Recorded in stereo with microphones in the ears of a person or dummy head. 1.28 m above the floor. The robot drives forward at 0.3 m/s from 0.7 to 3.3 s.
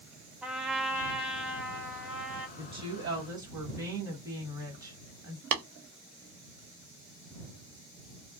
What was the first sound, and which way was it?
A trumpet, centre (ahead or behind).